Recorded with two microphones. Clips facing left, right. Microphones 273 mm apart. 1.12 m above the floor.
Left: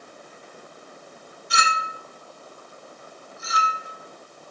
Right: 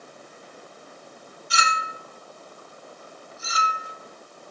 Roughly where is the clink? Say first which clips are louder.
Left 1 dB; left.